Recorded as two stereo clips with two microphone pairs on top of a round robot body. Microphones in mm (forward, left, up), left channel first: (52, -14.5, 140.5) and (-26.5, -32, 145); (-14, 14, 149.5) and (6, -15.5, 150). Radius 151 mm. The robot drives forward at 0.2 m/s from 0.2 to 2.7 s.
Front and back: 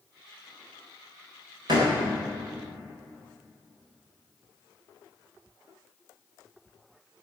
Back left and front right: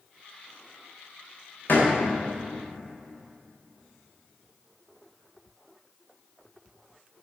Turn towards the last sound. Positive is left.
turn(degrees=165)